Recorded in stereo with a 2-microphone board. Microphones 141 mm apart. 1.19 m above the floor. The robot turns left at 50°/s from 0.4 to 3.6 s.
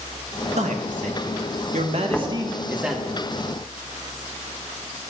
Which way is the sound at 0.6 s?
60° right.